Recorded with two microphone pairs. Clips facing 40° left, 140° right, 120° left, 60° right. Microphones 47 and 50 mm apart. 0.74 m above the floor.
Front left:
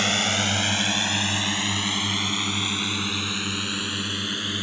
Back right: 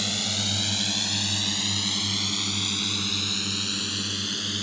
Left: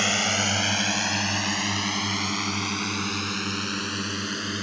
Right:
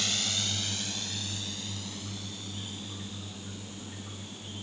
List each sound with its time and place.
0.0 s a drone: 80° left; by 4.6 s 110° left